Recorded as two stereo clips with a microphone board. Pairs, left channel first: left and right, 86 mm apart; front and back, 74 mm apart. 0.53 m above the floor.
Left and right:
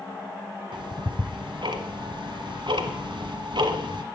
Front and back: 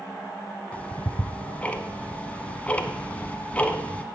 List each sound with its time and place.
0.7 s ticking: 70° right, 1.1 m